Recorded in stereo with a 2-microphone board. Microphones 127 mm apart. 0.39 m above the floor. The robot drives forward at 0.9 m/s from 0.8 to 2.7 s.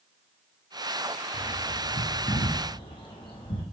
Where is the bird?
60° left (ahead or behind), 3 m; by 3.6 s 45° left (ahead or behind), 3.5 m.